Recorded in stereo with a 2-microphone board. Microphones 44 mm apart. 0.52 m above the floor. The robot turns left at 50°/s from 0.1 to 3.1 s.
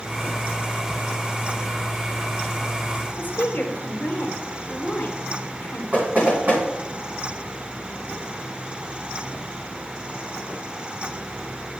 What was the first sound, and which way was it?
A woman speaking, 45° left (ahead or behind).